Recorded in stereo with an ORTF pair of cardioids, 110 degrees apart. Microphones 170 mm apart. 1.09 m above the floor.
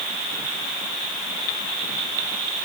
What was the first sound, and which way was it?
Only background noise.